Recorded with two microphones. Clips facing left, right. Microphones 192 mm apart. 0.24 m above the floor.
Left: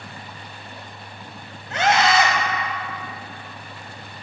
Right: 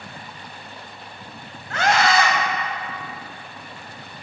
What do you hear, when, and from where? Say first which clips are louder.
1.7 s a scream: left 1 dB; 20° left (ahead or behind), 1.1 m